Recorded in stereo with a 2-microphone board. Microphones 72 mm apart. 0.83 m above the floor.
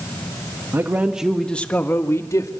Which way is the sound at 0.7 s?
35° right (ahead or behind).